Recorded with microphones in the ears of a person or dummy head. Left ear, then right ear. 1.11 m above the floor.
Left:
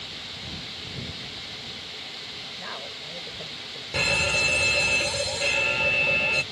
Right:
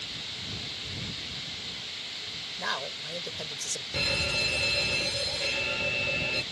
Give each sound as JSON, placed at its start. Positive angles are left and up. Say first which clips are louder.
{"t": 2.6, "sound": "a man speaking", "louder": "right 3 dB", "side_deg": -80}
{"t": 3.9, "sound": "a fire alarm", "louder": "left 5 dB", "side_deg": 40}